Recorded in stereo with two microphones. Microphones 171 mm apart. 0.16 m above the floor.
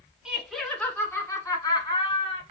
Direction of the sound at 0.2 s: 5° right (ahead or behind).